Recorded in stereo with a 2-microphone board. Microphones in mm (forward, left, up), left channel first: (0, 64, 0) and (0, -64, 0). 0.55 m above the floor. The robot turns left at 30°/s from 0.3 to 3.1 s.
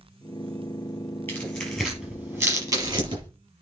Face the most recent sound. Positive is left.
turn(degrees=-40)  # may be behind; listen again after turning